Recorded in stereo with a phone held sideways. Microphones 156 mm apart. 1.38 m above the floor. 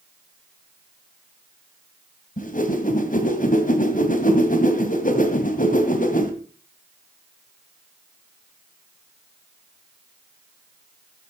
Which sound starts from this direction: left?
A whoosh, at 2.4 s.